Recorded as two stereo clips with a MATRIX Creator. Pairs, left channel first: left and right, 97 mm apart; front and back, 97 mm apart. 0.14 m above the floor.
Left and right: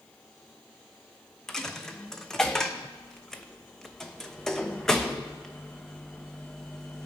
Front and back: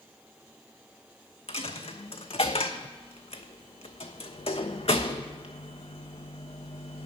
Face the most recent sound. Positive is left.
turn(degrees=5)